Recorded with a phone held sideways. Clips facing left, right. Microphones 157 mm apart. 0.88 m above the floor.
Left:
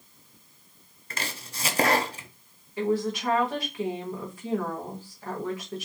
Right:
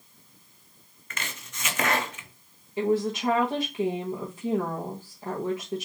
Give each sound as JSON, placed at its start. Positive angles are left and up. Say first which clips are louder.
{"t": 1.1, "sound": "chopping", "louder": "left 3 dB", "side_deg": 35, "distance_m": 0.6}
{"t": 2.8, "sound": "a woman speaking", "louder": "right 2 dB", "side_deg": -20, "distance_m": 0.9}